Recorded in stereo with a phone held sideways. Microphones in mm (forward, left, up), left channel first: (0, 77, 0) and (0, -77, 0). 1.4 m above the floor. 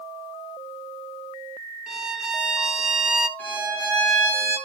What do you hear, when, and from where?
1.9 s a violin: 5° right (ahead or behind), 0.7 m
3.4 s a violin: 10° left (ahead or behind), 6 m